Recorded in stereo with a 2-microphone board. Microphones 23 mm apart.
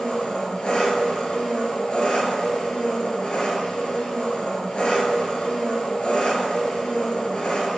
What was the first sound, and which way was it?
An engine running, 45° left (ahead or behind).